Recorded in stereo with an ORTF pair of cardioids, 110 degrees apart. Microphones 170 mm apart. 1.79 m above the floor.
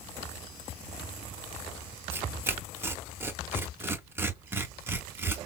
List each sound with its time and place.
2.1 s tearing paper: 15° right, 0.7 m